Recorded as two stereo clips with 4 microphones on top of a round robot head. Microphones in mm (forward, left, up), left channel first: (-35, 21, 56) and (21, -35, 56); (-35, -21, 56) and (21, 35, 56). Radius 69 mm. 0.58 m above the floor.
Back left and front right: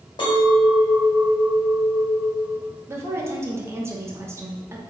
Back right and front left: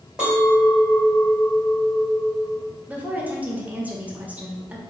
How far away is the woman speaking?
About 0.8 m.